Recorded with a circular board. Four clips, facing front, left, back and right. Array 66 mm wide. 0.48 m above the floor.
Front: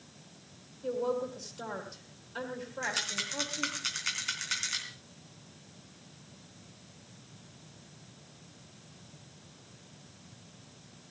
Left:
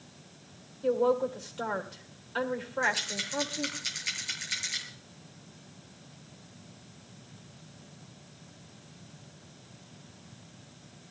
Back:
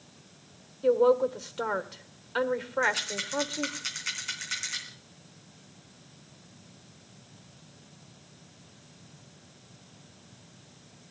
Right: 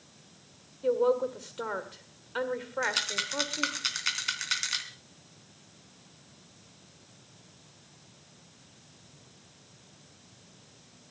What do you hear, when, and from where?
0.8 s a woman speaking: 170° right, 1.9 m
2.8 s a rattle: 85° right, 2.5 m